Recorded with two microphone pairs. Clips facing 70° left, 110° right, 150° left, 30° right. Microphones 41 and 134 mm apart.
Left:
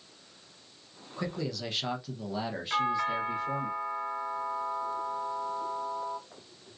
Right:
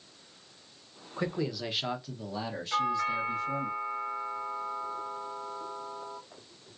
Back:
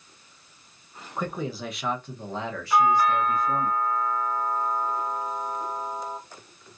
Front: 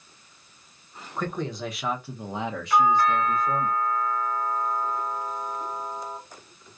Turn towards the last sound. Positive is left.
turn(degrees=70)